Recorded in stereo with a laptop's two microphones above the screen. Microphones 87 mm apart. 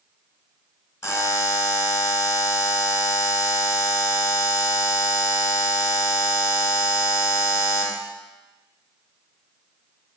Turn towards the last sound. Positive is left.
turn(degrees=30)  # may be behind; listen again after turning